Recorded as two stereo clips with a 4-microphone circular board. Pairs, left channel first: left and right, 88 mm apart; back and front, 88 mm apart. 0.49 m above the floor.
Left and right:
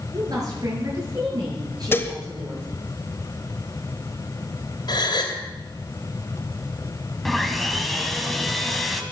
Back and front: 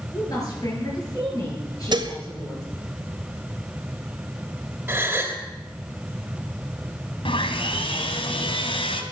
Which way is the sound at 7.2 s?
Straight behind.